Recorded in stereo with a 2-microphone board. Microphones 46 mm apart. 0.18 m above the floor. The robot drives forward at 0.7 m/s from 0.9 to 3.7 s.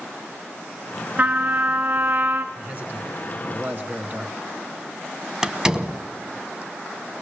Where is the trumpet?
35° right (ahead or behind), 1.6 m; by 2.5 s 50° right (ahead or behind), 1.3 m.